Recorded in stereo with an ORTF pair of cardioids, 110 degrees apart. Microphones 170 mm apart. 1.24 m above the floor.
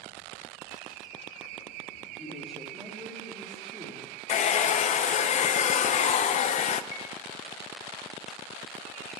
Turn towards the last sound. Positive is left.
turn(degrees=35)